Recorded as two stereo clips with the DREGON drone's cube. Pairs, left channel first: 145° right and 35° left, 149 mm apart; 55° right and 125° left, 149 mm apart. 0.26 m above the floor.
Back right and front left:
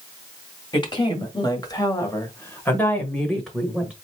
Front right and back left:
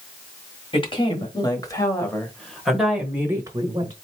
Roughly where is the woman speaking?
Right.